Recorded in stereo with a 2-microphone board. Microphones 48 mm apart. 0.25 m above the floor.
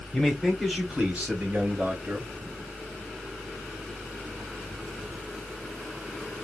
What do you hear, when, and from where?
0.1 s a man speaking: 10° left (ahead or behind), 1.0 m; by 2.3 s 55° right (ahead or behind), 1.5 m